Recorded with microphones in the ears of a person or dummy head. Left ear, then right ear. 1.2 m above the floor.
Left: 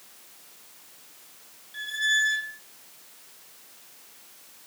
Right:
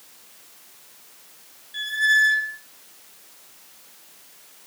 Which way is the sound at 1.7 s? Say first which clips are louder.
Right 6 dB; 30° right (ahead or behind).